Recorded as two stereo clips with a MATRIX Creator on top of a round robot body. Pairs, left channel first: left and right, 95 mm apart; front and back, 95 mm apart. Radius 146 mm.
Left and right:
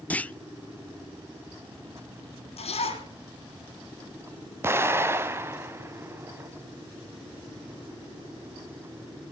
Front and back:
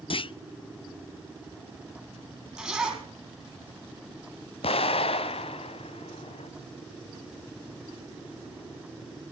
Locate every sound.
0.1 s a clunk: 15° left, 0.6 m
2.6 s a zipper: 95° left, 4 m
4.6 s an explosion: 25° right, 1.2 m